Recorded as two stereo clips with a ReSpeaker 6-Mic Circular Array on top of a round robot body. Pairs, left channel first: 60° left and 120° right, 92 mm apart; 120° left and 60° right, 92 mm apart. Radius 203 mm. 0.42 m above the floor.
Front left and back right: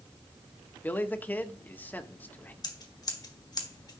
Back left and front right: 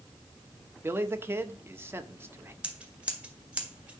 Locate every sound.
0.8 s a man speaking: 5° right, 1.6 m
2.6 s scissors: 15° left, 1.8 m